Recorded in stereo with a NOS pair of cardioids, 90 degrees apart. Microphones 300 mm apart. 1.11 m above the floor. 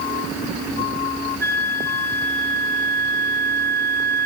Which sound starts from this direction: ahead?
A flute, at 1.4 s.